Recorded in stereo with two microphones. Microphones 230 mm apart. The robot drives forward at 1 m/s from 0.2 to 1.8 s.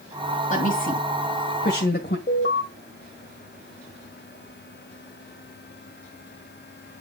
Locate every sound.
0.5 s a woman speaking: 35° left (ahead or behind), 2.5 m; by 2.2 s 50° left (ahead or behind), 1.9 m
2.3 s an alarm: 50° left (ahead or behind), 2 m